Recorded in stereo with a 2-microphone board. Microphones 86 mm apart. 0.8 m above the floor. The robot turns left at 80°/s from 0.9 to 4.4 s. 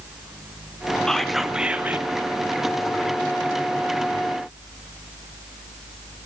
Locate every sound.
1.1 s whispering: 5° left (ahead or behind), 0.7 m; by 2.1 s 20° right (ahead or behind), 0.7 m